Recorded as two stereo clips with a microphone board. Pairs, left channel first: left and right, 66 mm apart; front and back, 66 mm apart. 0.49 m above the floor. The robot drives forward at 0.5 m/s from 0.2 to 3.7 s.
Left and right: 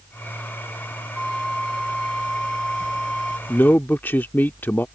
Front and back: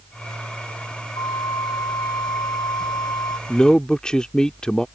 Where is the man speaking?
60° left; by 4.8 s 70° left.